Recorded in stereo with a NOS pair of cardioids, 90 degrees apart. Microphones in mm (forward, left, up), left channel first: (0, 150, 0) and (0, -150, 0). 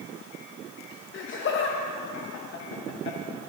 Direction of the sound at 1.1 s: 40° left.